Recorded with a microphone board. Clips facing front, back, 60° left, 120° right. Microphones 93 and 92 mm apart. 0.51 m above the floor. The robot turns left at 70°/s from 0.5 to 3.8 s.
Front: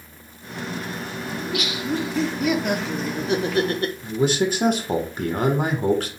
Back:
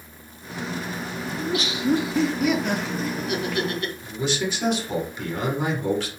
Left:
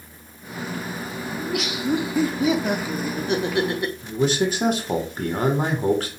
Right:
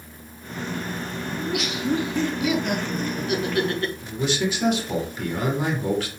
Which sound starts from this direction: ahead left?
A man speaking, at 4.0 s.